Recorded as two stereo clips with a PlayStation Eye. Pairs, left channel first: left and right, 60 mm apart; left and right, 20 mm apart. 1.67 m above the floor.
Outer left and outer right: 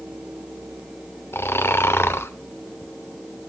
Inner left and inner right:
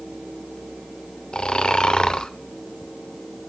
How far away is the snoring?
About 0.8 m.